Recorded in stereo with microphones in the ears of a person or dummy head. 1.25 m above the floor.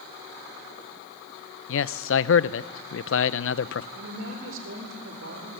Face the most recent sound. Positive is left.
turn(degrees=-75)  # may be behind; listen again after turning